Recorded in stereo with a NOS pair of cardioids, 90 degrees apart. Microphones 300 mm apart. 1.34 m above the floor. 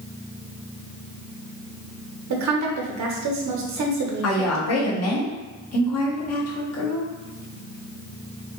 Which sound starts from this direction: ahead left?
A woman speaking, at 4.2 s.